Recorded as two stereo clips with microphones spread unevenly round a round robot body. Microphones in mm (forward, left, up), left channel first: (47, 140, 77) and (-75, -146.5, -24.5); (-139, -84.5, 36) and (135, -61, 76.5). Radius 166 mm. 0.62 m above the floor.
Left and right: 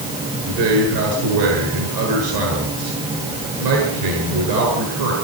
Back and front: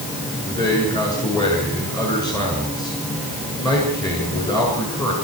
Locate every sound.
0.5 s a man speaking: 100° right, 8 m